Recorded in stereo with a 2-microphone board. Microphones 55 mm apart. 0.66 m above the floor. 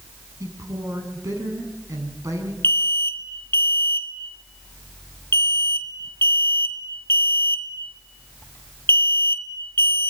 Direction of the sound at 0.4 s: 80° right.